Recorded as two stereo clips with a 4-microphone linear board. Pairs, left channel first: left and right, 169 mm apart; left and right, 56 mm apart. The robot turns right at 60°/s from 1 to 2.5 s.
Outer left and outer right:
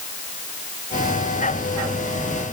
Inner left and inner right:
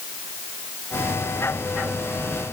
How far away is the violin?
No violin in this recording.